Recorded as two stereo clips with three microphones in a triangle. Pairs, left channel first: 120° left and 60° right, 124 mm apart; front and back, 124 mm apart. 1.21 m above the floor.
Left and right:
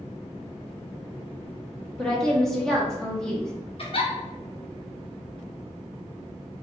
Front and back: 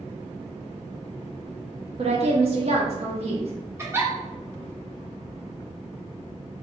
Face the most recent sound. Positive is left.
turn(degrees=120)